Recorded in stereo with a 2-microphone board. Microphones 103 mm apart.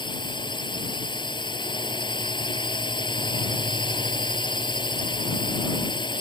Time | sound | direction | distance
0.0 | a drone | 50° left (ahead or behind) | ?